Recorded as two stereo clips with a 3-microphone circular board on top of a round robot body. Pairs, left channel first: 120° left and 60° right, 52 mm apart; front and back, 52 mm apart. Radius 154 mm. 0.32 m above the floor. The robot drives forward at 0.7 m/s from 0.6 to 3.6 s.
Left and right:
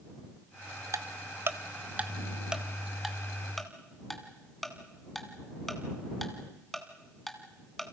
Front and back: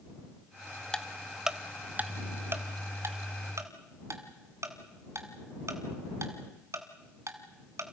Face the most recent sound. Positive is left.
turn(degrees=-155)